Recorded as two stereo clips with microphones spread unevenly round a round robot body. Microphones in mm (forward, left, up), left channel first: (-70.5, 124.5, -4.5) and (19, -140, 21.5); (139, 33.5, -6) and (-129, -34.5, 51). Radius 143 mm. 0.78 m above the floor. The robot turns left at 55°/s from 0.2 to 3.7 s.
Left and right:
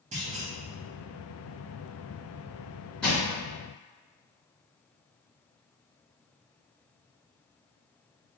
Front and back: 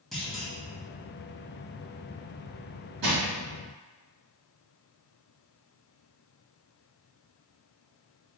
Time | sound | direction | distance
0.1 | a clunk | 40° right | 0.9 m
3.0 | crushing | 165° right | 1.7 m